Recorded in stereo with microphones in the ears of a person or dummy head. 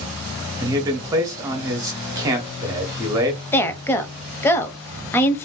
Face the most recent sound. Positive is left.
turn(degrees=15)  # may be behind; listen again after turning